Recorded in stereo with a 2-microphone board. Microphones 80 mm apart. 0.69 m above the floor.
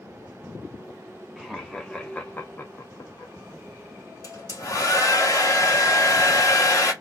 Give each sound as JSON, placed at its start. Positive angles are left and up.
{"t": 1.4, "sound": "laughter", "side_deg": -5, "distance_m": 1.0}
{"t": 4.2, "sound": "a hair dryer", "side_deg": 40, "distance_m": 1.3}